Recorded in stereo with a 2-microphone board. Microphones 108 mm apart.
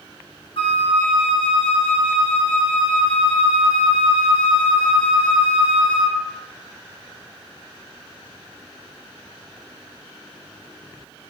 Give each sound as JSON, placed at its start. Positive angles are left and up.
{"t": 0.6, "sound": "a flute", "side_deg": 60, "distance_m": 1.7}